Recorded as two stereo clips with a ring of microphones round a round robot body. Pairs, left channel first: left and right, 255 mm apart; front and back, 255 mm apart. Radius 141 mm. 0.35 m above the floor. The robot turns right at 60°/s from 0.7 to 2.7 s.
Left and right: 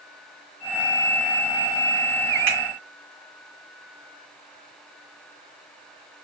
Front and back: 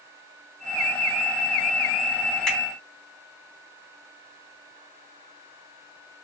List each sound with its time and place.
2.5 s a finger snap: 90° right, 2.5 m; by 2.6 s 80° right, 2.5 m